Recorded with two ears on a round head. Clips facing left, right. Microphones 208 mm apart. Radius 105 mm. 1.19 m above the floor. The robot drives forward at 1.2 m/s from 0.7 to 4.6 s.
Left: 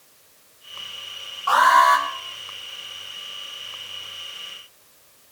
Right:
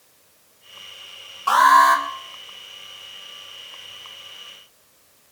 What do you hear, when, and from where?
1.5 s an alarm: 55° right (ahead or behind), 4 m; by 2.0 s 65° right (ahead or behind), 3.5 m